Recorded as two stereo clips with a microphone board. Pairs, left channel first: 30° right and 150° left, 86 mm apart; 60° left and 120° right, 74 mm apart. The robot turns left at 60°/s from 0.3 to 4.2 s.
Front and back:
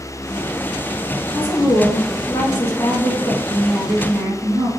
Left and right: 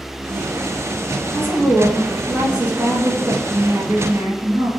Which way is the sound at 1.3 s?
25° left.